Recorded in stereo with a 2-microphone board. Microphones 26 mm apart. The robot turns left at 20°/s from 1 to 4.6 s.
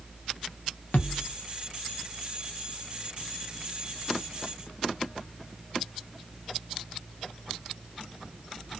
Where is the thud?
80° left, 0.8 m.